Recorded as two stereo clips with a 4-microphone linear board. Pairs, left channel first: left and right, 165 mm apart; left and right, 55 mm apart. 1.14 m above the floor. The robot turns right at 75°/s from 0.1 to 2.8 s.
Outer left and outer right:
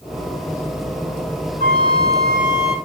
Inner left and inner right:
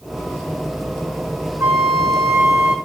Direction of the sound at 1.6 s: 120° right.